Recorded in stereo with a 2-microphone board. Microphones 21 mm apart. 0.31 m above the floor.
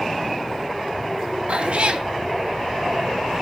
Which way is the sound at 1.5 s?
55° right (ahead or behind).